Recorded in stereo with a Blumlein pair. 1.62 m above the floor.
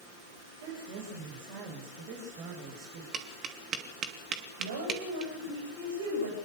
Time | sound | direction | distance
0.6 | a woman speaking | 50° right | 7.5 m
3.1 | tapping | 25° right | 3 m
4.6 | a woman speaking | 60° right | 8.5 m